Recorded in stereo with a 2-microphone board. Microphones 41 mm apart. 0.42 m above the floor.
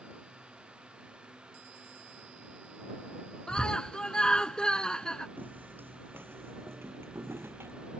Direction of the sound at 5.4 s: 50° right (ahead or behind).